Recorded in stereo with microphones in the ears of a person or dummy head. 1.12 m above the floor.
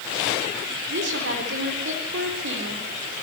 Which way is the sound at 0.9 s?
60° right (ahead or behind).